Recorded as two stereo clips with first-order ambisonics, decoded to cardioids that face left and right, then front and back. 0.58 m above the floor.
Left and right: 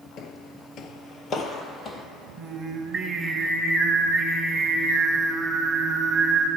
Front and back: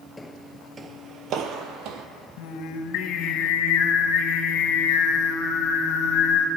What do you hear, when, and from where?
0.2 s footsteps: 75° left, 0.7 m; by 2.1 s 155° left, 1.2 m
2.4 s singing: 10° right, 1.1 m